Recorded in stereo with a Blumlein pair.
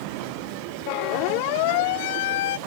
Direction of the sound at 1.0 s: 40° left.